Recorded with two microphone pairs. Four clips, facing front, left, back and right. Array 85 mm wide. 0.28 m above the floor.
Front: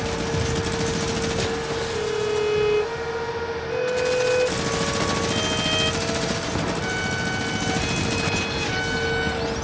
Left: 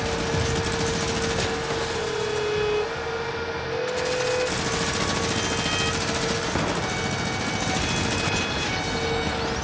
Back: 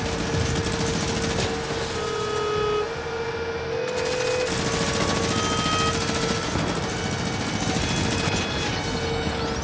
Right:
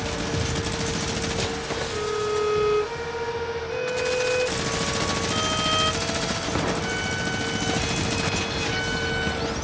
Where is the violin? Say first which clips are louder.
Right 1 dB, front 4 dB; 25° right, 1.8 m.